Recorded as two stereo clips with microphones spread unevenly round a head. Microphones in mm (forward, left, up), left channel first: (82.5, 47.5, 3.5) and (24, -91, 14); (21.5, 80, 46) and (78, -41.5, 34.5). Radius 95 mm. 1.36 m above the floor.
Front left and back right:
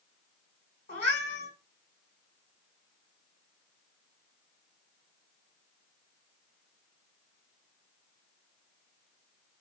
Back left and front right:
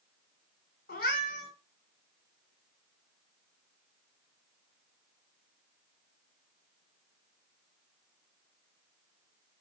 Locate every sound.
0.9 s a cat meowing: 130° left, 2.5 m